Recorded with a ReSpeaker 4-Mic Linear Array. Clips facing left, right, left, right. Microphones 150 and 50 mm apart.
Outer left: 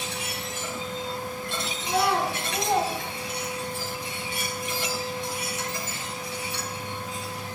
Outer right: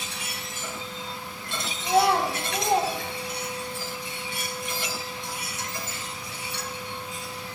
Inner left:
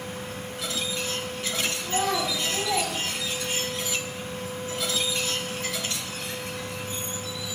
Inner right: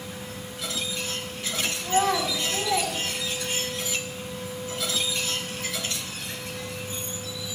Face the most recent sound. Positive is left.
turn(degrees=25)  # may be behind; listen again after turning